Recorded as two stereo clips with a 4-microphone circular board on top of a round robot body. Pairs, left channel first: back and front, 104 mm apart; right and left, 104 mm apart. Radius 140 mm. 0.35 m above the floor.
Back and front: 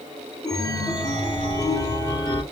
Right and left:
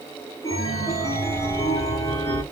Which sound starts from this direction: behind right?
A chime, at 0.4 s.